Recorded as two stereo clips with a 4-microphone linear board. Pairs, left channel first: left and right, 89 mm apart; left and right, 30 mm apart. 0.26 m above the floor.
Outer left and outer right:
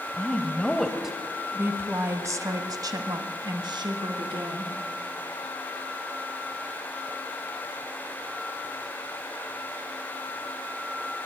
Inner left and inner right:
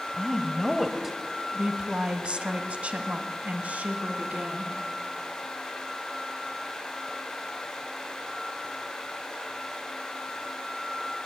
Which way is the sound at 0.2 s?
20° left (ahead or behind).